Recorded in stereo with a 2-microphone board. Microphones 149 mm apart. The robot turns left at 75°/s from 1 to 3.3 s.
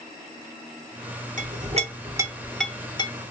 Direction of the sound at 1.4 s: 60° right (ahead or behind).